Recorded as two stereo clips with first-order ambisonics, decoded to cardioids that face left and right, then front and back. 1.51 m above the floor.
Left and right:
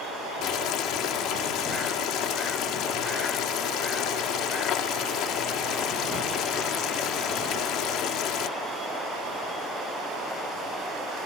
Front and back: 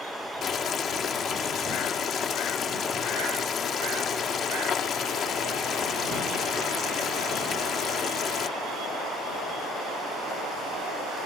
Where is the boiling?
55° left.